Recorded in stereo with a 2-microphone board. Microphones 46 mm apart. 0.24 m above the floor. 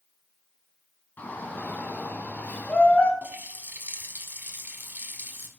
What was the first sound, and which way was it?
A shout, 45° left (ahead or behind).